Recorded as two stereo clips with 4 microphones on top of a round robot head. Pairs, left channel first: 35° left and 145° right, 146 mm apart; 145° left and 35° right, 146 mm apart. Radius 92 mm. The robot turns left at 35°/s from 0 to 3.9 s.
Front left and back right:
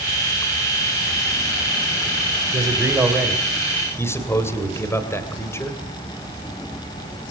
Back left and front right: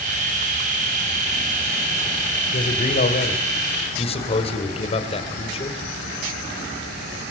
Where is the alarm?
No alarm in this recording.